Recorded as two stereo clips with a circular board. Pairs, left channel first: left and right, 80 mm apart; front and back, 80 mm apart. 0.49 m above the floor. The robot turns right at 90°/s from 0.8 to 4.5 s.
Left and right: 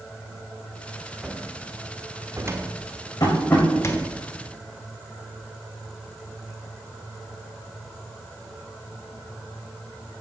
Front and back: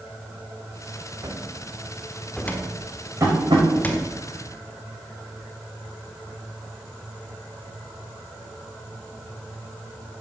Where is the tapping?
125° left, 5.5 m; by 3.7 s 165° left, 5.5 m.